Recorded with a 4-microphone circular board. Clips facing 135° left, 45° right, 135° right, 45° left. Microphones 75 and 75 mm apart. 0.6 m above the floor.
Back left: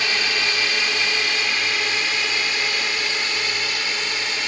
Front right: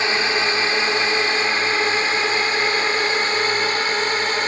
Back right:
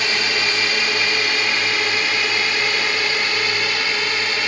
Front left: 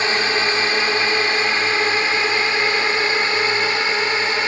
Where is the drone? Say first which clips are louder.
Front right 4 dB, front left 3 dB; straight ahead; by 4.5 s 10° right.